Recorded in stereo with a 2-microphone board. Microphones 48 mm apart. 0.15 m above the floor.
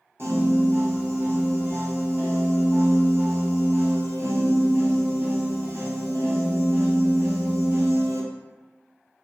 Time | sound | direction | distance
0.2 | a piano | 65° right (ahead or behind) | 1.2 m